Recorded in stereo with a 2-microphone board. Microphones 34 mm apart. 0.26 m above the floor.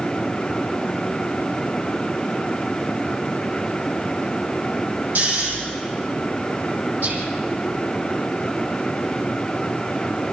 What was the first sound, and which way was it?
Snoring, 85° right.